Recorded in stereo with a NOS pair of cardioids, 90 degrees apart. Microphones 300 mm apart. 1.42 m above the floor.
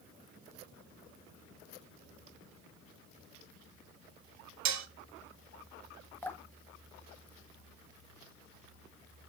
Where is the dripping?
5° left, 1.2 m.